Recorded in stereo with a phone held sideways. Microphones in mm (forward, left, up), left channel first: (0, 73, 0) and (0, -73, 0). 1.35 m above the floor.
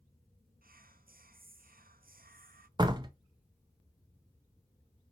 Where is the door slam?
30° right (ahead or behind), 0.5 m.